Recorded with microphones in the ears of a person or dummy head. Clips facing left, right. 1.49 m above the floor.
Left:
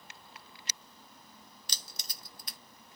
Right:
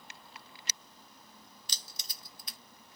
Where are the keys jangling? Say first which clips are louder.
Left 2 dB; 50° left (ahead or behind), 0.6 m.